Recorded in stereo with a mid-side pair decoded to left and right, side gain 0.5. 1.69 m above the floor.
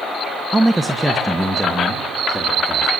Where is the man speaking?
10° right, 1.2 m; by 2.9 s 10° left, 3.5 m.